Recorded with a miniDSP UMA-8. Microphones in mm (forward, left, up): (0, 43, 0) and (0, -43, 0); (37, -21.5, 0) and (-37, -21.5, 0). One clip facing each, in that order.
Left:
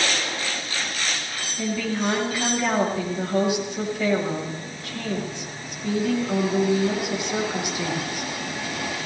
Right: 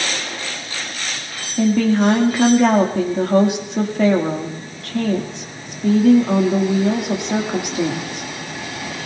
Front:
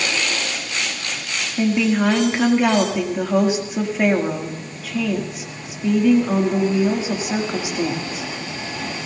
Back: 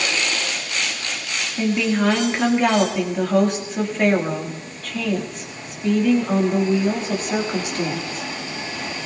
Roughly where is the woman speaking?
Right.